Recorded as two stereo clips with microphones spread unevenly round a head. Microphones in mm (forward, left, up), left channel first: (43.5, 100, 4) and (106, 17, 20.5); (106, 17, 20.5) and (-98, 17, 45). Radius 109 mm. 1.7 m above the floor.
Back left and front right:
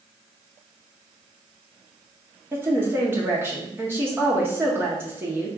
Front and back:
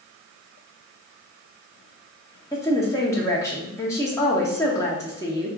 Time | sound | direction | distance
2.5 | a woman speaking | 80° right | 0.6 m